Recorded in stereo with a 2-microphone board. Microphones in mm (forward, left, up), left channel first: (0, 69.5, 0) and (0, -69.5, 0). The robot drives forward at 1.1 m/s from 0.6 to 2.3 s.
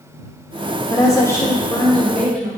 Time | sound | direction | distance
0.9 | a woman speaking | 25° left (ahead or behind) | 0.7 m